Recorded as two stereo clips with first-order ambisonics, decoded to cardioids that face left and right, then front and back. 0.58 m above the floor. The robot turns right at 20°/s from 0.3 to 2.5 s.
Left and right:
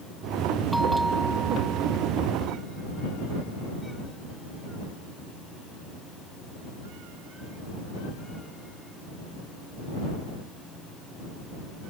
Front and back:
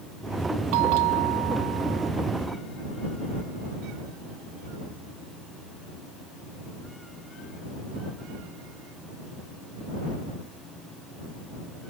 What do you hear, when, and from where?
0.7 s a bell: straight behind; by 2.1 s 150° right